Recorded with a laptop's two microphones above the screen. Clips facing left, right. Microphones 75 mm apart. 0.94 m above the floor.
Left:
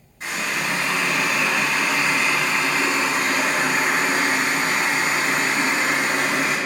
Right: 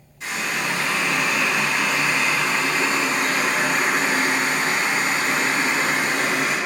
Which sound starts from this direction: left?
A running tap, at 0.2 s.